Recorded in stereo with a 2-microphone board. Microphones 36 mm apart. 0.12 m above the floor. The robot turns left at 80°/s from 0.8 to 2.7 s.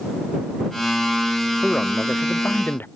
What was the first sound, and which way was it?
A man speaking, 160° left.